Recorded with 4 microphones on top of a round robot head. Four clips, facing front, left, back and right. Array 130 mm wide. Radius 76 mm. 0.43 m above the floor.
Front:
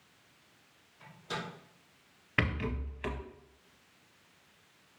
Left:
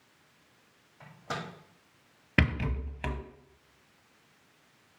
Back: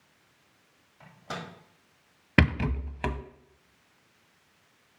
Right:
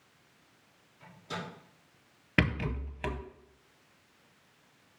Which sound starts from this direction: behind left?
A microwave, at 1.0 s.